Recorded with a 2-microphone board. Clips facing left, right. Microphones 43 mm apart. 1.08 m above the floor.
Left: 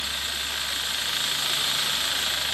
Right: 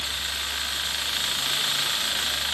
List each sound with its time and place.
Only background noise.